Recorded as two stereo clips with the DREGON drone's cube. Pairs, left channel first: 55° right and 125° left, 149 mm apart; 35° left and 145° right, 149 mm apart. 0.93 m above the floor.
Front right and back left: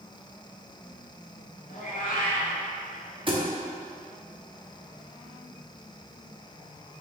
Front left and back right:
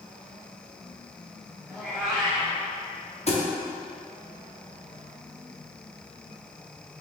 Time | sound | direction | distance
1.7 | a cat meowing | 60° right | 1.0 m
3.3 | a thud | 75° left | 0.7 m